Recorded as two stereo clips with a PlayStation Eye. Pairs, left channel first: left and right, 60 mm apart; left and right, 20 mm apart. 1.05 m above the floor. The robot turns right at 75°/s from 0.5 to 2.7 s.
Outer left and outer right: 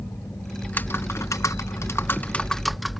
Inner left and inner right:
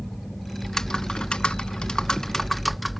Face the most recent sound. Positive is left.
turn(degrees=180)